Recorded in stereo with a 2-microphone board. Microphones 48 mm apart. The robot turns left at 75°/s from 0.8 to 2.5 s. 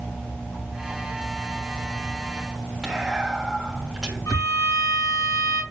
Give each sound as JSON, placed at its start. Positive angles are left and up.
{"t": 2.8, "sound": "whispering", "side_deg": -10, "distance_m": 3.0}
{"t": 4.3, "sound": "a violin", "side_deg": 75, "distance_m": 4.0}